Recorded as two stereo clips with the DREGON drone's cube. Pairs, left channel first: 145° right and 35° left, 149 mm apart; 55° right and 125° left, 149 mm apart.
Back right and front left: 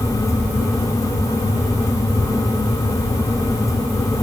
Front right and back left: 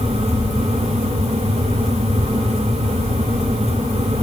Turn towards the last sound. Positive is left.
No sound to turn to.